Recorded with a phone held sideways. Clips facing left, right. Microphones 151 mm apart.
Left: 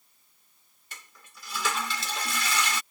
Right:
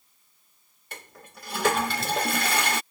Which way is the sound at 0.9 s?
55° right (ahead or behind).